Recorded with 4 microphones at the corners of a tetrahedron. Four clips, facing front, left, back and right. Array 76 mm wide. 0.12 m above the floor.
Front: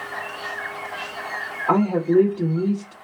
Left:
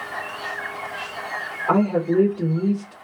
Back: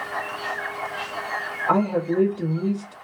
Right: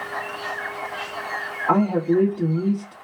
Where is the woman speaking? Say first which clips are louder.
Even, front 3 dB; 30° left, 3 m.